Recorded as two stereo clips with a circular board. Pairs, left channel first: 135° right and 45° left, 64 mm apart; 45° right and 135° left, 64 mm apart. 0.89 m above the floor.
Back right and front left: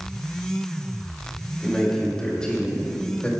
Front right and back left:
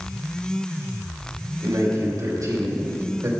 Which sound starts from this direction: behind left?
A man speaking, at 1.6 s.